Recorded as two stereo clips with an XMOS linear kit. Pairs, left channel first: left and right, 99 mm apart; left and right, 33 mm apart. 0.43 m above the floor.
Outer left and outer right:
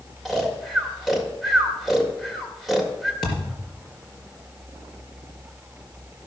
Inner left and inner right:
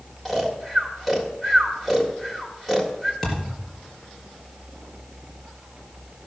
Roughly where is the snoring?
Centre.